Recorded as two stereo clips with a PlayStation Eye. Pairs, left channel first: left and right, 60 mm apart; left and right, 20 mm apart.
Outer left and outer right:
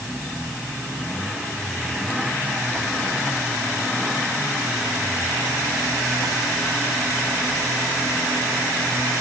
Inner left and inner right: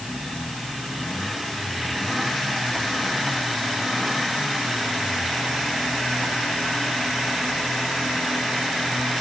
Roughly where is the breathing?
I don't hear breathing.